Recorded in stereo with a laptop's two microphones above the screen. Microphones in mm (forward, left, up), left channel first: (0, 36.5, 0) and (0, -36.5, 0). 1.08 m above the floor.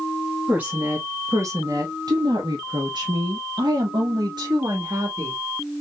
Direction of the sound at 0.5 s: 15° right (ahead or behind).